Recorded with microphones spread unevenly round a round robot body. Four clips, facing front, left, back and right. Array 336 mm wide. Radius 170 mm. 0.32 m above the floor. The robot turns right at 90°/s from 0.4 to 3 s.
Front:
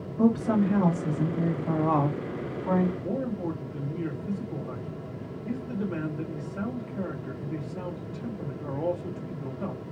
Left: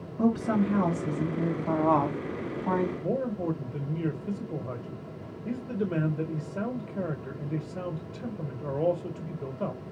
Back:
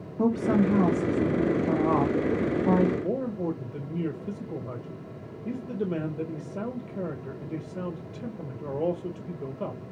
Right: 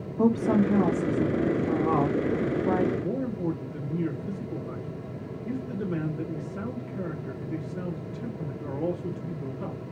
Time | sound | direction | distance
0.2 | a woman speaking | 70° right | 2 m
3.0 | a man speaking | 135° left | 1.5 m